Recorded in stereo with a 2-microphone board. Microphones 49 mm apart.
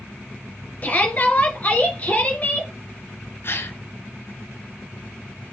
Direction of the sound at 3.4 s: 55° left (ahead or behind).